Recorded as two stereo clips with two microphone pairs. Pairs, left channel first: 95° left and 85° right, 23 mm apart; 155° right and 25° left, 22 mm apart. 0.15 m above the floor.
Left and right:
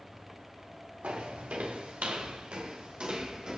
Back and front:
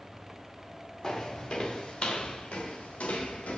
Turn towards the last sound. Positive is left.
turn(degrees=-140)